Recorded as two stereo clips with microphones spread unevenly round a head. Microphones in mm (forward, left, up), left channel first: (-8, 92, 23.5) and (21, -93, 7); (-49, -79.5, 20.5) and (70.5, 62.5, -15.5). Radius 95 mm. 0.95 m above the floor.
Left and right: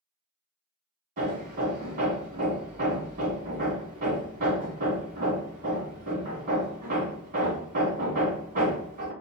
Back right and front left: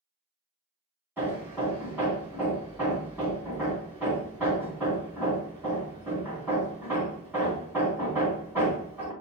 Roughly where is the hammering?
Ahead right.